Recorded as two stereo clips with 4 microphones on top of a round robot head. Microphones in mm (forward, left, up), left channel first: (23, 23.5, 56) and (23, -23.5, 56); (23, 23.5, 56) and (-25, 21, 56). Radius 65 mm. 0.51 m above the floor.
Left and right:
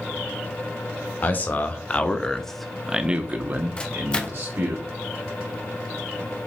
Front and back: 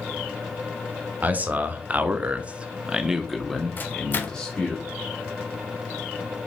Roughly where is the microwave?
Ahead left.